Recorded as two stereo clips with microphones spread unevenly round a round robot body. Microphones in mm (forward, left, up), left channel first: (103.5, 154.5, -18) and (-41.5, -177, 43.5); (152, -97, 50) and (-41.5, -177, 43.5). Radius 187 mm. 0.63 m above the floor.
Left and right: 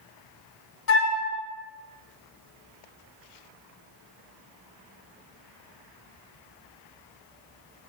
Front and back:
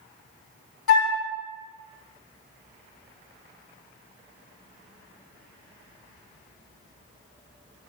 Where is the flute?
10° left, 1.0 m.